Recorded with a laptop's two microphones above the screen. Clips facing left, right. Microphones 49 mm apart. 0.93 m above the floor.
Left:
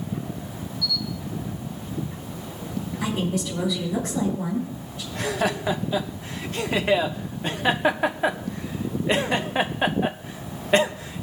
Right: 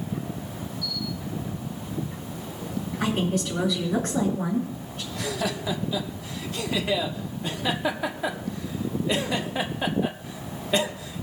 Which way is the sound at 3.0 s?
50° right (ahead or behind).